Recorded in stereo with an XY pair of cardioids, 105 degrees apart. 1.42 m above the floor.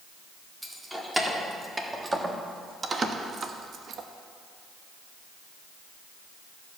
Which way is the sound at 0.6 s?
10° right.